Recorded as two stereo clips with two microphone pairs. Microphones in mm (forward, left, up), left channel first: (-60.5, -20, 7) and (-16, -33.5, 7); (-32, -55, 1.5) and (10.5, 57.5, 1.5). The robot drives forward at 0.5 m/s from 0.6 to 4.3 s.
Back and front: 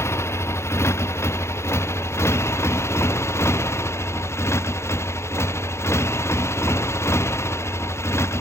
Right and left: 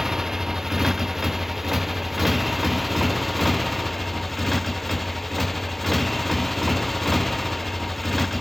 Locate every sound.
0.0 s a motorcycle: 155° left; by 8.4 s 160° left